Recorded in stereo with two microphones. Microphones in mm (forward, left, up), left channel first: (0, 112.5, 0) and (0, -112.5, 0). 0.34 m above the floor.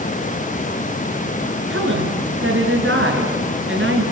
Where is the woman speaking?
65° right (ahead or behind), 4.5 m.